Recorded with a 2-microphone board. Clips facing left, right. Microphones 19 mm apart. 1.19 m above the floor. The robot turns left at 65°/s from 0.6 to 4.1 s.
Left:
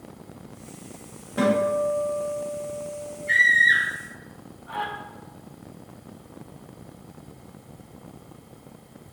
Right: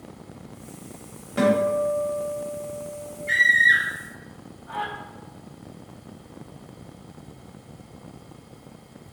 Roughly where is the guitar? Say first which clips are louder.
Right 1 dB; right.